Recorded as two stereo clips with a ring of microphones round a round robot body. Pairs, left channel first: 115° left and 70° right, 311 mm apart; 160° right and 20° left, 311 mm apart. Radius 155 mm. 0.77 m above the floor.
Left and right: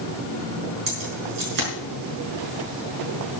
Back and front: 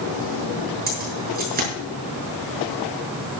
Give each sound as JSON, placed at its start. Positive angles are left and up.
{"t": 0.9, "sound": "keys jangling", "azimuth_deg": -40, "distance_m": 7.0}